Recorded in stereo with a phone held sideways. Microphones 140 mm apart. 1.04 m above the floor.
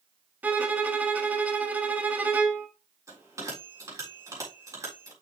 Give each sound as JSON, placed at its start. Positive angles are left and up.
{"t": 0.4, "sound": "a violin", "side_deg": -10, "distance_m": 1.0}
{"t": 3.1, "sound": "a bell", "side_deg": -25, "distance_m": 4.0}